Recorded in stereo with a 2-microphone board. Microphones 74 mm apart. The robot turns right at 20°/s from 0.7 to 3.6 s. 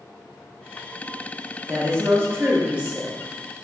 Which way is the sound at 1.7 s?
45° right.